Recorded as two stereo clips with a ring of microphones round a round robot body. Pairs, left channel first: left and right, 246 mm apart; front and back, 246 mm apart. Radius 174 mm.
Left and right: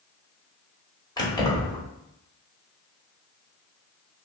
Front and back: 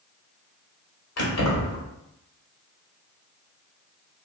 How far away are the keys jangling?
About 1.6 m.